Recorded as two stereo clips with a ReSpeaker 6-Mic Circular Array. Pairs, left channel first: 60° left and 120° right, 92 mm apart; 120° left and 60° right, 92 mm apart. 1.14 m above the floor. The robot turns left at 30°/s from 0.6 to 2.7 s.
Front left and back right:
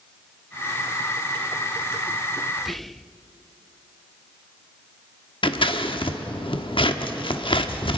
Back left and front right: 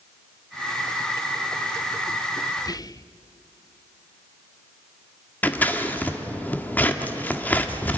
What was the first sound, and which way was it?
Whispering, 155° left.